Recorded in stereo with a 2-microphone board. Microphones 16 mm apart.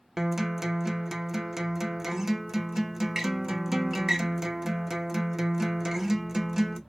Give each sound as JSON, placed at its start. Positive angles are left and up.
{"t": 0.2, "sound": "a guitar", "side_deg": -25, "distance_m": 0.6}